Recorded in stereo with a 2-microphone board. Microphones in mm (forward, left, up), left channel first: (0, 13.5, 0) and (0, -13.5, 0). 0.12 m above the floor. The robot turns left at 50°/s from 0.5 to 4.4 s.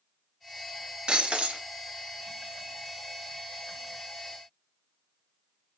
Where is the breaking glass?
35° right (ahead or behind), 0.9 m; by 1.6 s 50° right (ahead or behind), 0.9 m.